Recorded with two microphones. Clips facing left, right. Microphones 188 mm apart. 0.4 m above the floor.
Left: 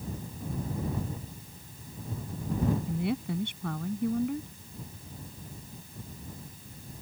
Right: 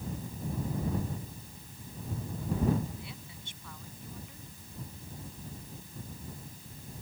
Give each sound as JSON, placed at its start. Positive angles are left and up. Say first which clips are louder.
{"t": 2.9, "sound": "a woman speaking", "louder": "left 16 dB", "side_deg": 65}